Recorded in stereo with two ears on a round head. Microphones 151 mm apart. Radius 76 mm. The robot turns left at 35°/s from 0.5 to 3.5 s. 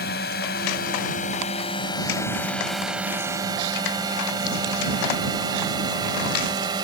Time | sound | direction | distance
0.0 | a drone | 65° left (ahead or behind) | ?